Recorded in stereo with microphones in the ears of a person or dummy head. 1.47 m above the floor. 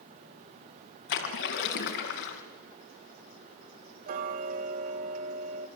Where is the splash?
65° left (ahead or behind), 4 m.